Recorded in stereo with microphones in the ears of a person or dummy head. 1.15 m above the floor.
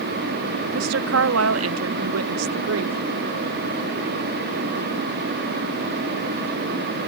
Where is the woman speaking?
80° right.